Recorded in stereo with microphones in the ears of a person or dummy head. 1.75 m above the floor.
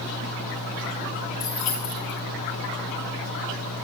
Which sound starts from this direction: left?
Keys jangling, at 1.4 s.